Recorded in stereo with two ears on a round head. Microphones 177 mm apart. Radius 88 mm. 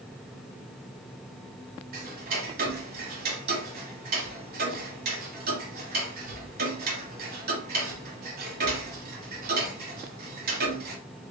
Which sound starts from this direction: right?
Ticking, at 1.9 s.